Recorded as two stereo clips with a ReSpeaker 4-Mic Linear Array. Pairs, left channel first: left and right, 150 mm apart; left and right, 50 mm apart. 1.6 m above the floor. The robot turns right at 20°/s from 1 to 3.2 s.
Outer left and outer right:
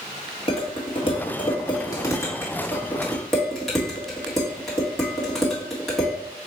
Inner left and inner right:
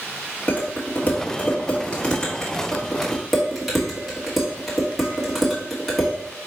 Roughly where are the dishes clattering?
Left.